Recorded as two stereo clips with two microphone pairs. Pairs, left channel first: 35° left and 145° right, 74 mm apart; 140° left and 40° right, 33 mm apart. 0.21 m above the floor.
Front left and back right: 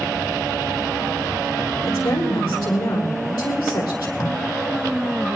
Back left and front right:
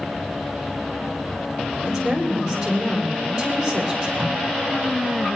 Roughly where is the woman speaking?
Ahead left.